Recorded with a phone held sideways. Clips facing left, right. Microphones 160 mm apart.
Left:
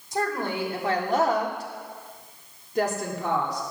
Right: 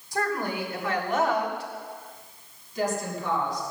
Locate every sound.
0.1 s a woman speaking: 20° left (ahead or behind), 3.5 m; by 3.6 s 75° left (ahead or behind), 3 m